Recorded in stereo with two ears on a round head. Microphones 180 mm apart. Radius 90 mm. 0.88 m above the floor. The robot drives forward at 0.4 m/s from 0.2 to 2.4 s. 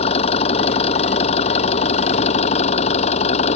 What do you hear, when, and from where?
0.0 s an engine running: 30° left (ahead or behind)